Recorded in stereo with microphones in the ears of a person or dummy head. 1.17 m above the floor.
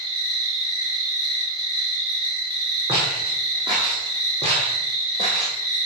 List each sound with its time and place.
0.0 s an insect: 30° right (ahead or behind), 2.5 m
2.9 s footsteps: 25° right (ahead or behind), 4 m; by 5.6 s 35° right (ahead or behind), 2.5 m